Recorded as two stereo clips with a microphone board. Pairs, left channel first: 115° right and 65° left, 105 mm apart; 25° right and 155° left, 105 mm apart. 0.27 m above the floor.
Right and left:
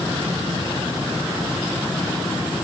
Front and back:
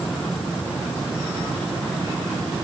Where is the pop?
I don't hear a pop.